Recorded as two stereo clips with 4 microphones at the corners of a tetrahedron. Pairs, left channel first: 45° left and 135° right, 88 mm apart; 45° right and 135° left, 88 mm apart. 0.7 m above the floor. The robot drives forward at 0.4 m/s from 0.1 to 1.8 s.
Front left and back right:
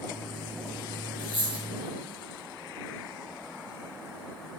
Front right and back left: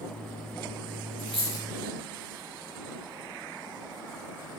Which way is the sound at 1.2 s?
130° right.